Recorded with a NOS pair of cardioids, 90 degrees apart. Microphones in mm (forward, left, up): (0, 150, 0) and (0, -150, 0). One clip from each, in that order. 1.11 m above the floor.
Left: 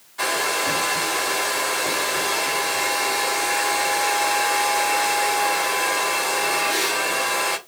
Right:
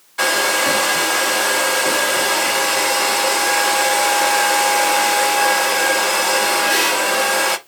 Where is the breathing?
I don't hear breathing.